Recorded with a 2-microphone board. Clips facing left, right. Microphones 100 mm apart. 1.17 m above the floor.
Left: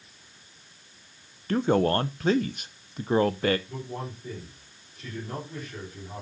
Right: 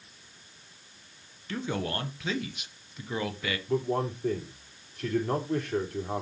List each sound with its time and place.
1.5 s a man speaking: 45° left (ahead or behind), 0.8 m
3.7 s a man speaking: 65° right (ahead or behind), 3.5 m